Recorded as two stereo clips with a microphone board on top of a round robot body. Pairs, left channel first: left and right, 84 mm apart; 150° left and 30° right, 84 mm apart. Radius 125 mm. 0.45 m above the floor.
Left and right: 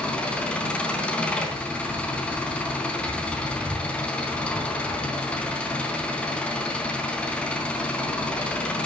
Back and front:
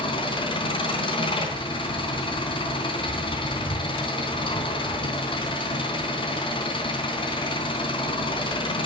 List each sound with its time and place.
0.0 s an engine running: 165° left, 3.5 m